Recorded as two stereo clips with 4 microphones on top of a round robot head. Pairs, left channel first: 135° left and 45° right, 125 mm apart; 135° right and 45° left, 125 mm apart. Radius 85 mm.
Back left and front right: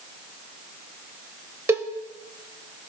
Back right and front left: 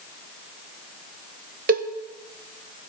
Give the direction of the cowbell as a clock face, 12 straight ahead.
11 o'clock.